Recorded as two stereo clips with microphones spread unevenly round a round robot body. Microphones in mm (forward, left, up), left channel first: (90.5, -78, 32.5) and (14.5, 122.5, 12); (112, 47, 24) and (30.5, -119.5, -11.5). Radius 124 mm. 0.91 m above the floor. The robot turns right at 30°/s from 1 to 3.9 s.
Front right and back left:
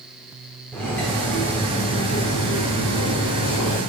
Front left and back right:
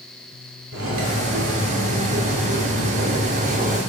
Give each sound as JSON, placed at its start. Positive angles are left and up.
{"t": 0.7, "sound": "cutlery clinking", "azimuth_deg": -155, "distance_m": 1.5}